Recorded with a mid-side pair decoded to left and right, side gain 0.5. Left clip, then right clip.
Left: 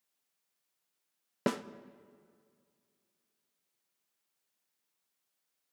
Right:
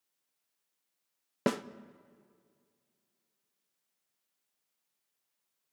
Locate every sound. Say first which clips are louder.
1.5 s a snare drum: right 2 dB; 15° right, 0.7 m